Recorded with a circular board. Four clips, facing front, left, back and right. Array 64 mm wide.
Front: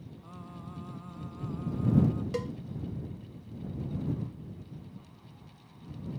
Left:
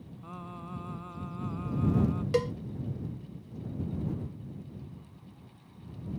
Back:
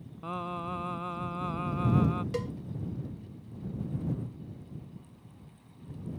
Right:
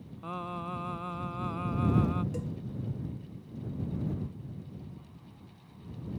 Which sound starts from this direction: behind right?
Singing, at 0.2 s.